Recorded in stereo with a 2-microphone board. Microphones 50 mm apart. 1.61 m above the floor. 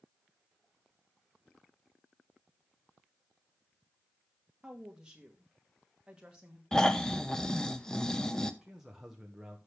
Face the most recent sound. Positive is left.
turn(degrees=-5)  # may be behind; listen again after turning